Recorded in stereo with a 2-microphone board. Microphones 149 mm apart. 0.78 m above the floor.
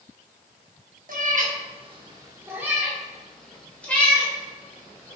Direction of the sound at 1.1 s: 70° right (ahead or behind).